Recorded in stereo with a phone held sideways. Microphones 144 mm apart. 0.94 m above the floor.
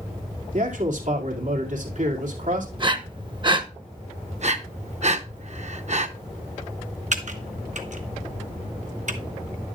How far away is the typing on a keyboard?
About 1.0 m.